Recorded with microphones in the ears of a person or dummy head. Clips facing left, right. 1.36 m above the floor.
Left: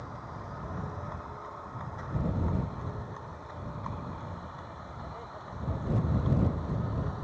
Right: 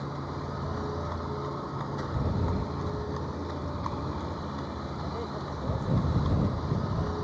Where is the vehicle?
55° right (ahead or behind); by 7.2 s 60° right (ahead or behind).